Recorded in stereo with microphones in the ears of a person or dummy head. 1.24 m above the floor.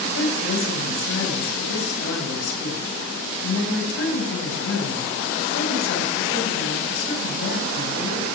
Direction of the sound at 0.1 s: 90° left.